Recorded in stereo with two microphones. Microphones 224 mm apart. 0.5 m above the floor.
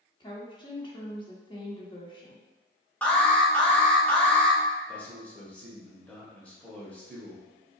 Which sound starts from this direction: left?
A woman speaking, at 0.2 s.